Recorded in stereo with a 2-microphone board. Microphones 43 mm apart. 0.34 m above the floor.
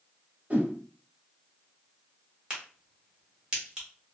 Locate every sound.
0.5 s a whoosh: 30° right (ahead or behind), 0.9 m
2.5 s a crack: 20° right (ahead or behind), 1.4 m